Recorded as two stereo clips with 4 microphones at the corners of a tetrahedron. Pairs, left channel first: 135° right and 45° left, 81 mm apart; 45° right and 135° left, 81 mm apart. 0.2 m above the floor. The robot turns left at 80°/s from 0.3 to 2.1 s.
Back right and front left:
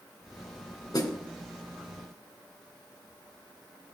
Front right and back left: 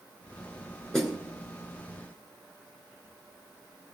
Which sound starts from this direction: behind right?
A snare drum, at 0.9 s.